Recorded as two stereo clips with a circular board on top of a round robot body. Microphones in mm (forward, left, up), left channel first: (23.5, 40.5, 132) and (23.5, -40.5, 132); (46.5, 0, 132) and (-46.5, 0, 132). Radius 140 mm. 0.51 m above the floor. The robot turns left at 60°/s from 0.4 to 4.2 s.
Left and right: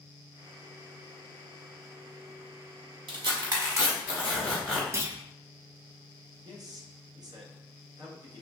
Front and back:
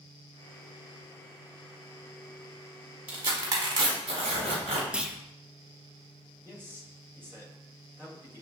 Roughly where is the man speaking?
Behind right.